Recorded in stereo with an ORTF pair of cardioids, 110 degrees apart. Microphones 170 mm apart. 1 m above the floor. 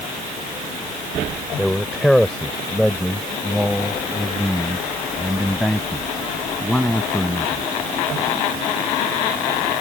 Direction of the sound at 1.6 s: 5° left.